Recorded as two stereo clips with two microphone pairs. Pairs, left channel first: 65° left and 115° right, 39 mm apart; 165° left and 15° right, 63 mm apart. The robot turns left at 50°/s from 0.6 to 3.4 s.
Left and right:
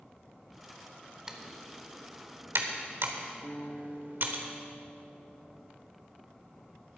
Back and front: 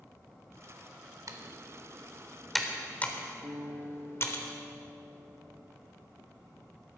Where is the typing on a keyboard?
40° right, 1.2 m; by 4.4 s 145° right, 1.2 m.